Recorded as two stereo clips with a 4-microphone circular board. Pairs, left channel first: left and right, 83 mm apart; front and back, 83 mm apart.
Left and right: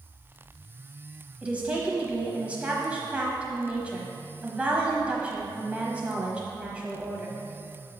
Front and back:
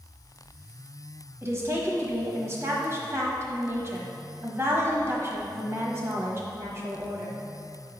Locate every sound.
1.4 s a woman speaking: 155° right, 1.1 m